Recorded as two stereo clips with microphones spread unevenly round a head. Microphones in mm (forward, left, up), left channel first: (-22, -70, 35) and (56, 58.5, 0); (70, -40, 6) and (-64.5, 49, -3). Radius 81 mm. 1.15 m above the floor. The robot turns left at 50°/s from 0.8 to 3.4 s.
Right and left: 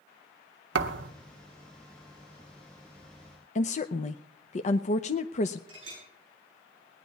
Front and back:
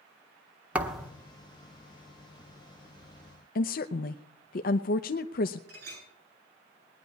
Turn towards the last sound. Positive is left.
turn(degrees=120)